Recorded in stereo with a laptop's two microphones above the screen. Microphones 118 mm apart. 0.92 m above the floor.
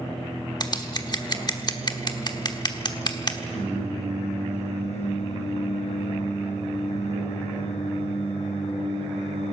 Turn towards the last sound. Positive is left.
turn(degrees=70)  # may be behind; listen again after turning